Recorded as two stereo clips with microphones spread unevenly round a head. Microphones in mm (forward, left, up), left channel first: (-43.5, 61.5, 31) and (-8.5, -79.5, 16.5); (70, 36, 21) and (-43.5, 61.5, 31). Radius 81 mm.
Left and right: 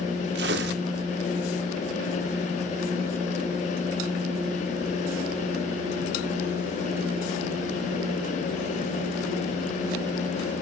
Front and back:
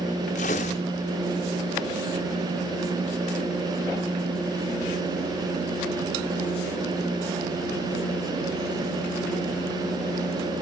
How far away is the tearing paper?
About 2.5 m.